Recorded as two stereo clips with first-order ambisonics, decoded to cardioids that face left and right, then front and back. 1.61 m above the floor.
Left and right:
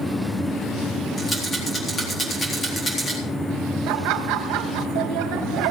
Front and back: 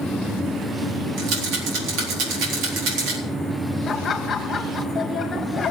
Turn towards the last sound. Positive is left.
turn(degrees=-70)